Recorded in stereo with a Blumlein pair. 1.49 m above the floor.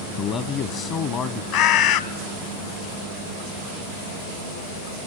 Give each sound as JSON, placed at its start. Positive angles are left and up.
{"t": 0.2, "sound": "a man speaking", "azimuth_deg": 30, "distance_m": 0.7}
{"t": 1.5, "sound": "a bird", "azimuth_deg": 45, "distance_m": 0.9}